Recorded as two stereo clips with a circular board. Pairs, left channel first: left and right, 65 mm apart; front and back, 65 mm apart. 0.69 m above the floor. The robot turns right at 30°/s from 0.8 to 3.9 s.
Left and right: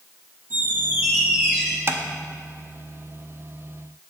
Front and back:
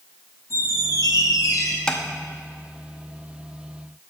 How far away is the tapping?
About 0.7 m.